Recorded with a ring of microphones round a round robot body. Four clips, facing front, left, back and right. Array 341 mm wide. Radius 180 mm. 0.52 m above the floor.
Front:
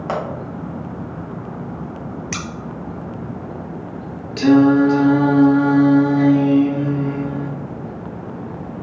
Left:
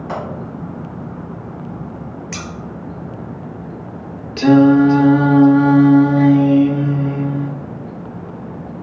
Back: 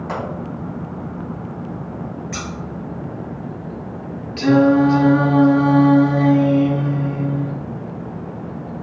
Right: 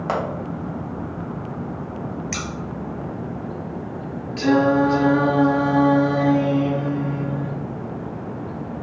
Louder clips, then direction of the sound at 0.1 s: Right 2 dB, front 4 dB; 60° right.